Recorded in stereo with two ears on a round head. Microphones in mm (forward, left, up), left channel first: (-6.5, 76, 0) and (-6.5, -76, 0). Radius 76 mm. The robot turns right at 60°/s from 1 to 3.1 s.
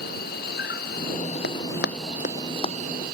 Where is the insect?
120° left; by 3.1 s 115° right.